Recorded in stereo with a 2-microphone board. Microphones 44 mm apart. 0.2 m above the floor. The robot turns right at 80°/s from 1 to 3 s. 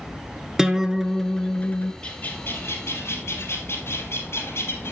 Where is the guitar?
15° right, 1.0 m; by 1.9 s 60° left, 1.0 m.